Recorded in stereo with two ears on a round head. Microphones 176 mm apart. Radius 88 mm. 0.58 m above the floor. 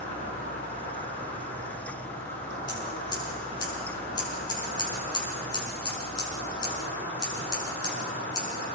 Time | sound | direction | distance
0.0 | an insect | 30° left (ahead or behind) | 9.5 m
2.7 | scissors | 20° left (ahead or behind) | 6 m